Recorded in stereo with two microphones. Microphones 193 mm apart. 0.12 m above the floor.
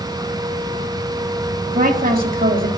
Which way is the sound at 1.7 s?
40° right (ahead or behind).